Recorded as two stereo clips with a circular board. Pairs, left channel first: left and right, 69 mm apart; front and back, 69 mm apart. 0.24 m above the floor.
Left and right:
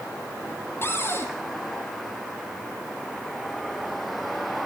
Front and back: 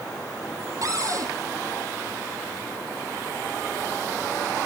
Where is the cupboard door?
145° left, 3 m.